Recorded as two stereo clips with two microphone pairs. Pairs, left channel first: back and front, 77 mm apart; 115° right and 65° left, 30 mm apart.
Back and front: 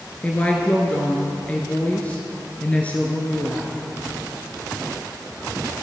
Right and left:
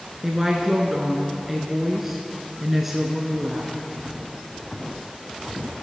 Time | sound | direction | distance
0.2 | a woman speaking | 135° left | 1.1 m